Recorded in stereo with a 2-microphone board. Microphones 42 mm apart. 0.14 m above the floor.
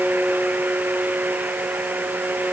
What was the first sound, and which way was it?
Only background noise.